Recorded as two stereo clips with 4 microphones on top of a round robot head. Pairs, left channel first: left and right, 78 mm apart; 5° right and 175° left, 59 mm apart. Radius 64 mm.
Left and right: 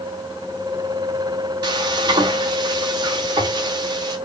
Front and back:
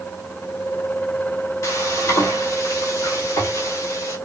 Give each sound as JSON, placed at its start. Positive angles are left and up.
{"t": 1.6, "sound": "frying", "azimuth_deg": -50, "distance_m": 1.1}